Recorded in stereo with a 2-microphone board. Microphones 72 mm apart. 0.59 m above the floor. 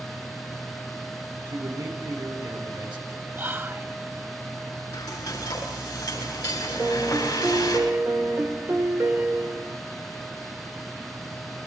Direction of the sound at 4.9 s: 50° left (ahead or behind).